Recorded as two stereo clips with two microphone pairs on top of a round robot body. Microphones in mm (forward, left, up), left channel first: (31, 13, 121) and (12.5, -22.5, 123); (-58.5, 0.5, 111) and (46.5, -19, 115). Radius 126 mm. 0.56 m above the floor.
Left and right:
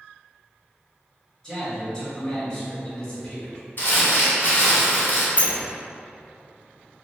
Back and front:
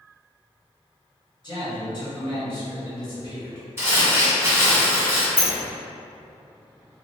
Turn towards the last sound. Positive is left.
turn(degrees=90)